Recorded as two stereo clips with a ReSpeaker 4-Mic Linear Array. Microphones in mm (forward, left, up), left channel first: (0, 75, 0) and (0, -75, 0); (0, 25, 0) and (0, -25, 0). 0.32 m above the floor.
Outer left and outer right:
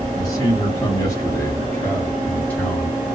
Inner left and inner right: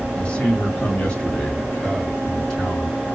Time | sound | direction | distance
0.1 | a man speaking | 25° left (ahead or behind) | 1.4 m